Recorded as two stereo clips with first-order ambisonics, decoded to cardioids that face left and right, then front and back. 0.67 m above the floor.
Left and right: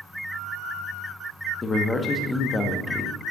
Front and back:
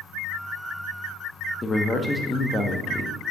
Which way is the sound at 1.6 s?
50° left.